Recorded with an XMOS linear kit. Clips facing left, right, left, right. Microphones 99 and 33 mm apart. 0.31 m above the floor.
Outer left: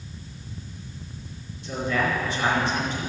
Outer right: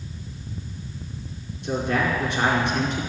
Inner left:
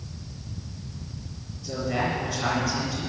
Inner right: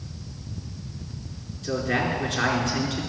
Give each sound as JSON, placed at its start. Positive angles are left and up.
{"t": 1.6, "sound": "a man speaking", "side_deg": -60, "distance_m": 4.5}